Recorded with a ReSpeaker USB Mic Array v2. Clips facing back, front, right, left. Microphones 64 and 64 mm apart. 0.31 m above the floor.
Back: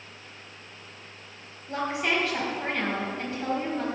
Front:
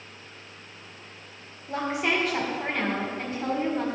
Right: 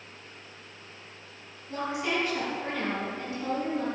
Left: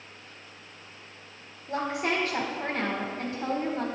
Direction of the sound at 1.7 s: 75° left.